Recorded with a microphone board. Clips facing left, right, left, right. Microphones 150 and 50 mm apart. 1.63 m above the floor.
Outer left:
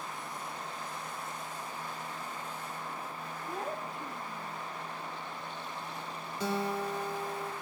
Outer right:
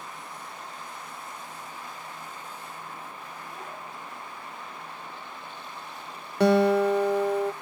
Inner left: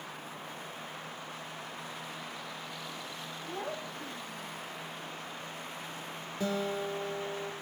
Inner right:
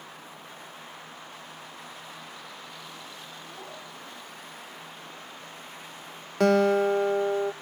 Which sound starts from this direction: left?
A child speaking, at 3.5 s.